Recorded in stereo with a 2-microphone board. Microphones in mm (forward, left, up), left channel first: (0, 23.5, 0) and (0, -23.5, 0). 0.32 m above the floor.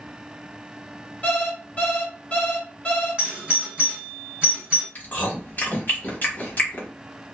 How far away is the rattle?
I don't hear a rattle.